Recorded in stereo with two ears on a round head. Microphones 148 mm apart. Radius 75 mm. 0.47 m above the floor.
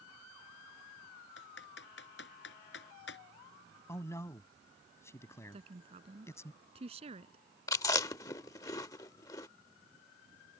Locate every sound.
1.4 s typing on a keyboard: 75° left (ahead or behind)
3.9 s a man speaking: 15° left (ahead or behind)
5.5 s a woman speaking: 40° right (ahead or behind)
7.7 s chewing: 20° left (ahead or behind)